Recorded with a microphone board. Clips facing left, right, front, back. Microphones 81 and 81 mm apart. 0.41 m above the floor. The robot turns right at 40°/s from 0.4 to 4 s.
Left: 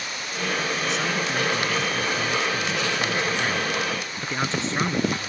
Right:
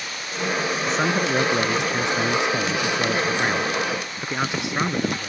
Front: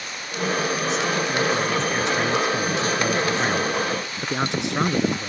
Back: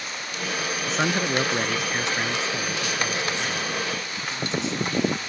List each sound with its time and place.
0.8 s a man speaking: 140° right; by 5.3 s 15° right